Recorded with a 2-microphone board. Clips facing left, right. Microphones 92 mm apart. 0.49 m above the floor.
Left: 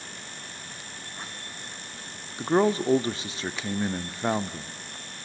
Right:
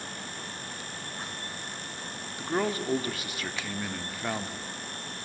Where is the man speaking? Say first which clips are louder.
Left 7 dB; 25° left (ahead or behind), 0.7 m.